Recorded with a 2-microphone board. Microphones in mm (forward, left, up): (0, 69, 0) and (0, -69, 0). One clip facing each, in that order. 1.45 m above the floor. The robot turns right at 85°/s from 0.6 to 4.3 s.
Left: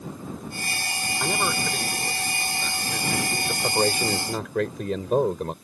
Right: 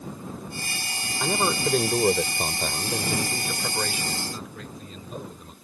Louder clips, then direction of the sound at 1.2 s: Right 2 dB; straight behind.